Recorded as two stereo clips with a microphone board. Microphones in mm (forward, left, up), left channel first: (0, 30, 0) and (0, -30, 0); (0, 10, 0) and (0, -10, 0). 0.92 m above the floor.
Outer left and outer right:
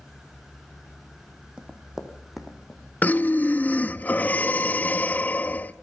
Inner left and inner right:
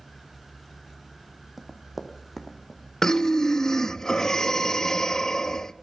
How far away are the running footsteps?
About 2.5 m.